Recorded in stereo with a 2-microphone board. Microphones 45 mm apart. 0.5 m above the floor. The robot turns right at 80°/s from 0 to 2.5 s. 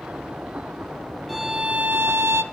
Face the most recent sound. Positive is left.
turn(degrees=-80)